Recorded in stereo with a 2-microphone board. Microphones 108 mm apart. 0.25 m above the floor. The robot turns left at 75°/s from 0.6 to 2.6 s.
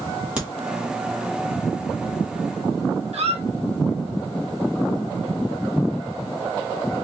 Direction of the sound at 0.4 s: 10° right (ahead or behind).